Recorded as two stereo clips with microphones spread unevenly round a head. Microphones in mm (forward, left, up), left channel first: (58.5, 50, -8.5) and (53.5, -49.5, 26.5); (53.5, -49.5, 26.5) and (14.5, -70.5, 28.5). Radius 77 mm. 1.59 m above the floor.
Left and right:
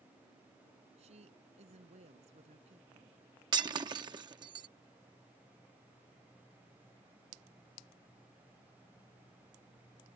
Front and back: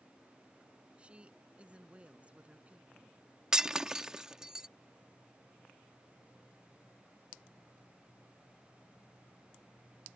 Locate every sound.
1.0 s a woman speaking: 90° right
3.5 s breaking glass: 80° right